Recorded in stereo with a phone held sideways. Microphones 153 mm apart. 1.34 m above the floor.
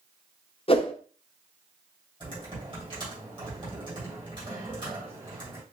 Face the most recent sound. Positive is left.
turn(degrees=-30)  # may be behind; listen again after turning